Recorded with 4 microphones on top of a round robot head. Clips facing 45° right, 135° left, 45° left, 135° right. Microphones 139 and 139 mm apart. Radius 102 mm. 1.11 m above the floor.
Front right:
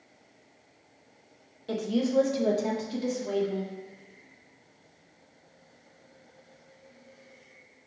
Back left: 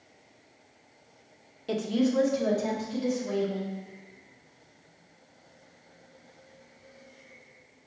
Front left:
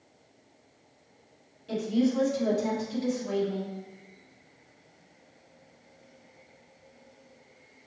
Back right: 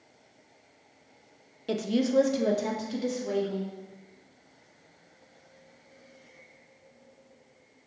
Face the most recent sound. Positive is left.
turn(degrees=-85)